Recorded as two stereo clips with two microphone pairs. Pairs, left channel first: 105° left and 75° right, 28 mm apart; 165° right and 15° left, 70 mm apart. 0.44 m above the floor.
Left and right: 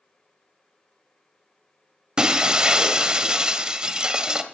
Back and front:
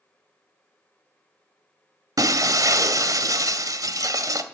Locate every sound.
2.2 s breaking glass: 15° right, 1.1 m